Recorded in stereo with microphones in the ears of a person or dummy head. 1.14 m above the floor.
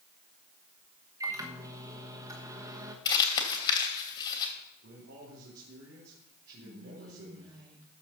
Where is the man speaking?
60° right (ahead or behind), 3 m.